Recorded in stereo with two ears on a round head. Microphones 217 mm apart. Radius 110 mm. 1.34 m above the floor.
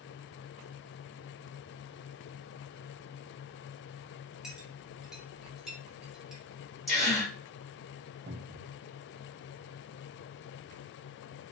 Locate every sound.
4.4 s a clink: centre (ahead or behind), 0.7 m
6.9 s a gasp: centre (ahead or behind), 1.3 m
8.3 s a cupboard door: 45° right (ahead or behind), 0.6 m